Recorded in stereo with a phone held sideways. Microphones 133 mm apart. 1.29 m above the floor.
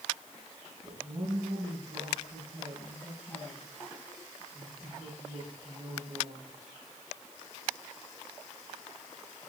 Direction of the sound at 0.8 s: 45° right (ahead or behind).